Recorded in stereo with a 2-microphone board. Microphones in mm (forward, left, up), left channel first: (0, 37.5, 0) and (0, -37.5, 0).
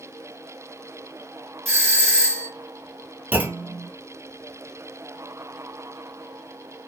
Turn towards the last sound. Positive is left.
turn(degrees=-25)  # may be behind; listen again after turning